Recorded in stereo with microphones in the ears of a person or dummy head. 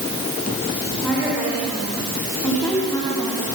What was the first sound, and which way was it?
A woman speaking, 10° left (ahead or behind).